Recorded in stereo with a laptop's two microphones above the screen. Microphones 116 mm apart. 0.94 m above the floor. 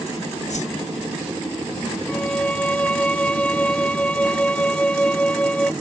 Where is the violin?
10° left (ahead or behind).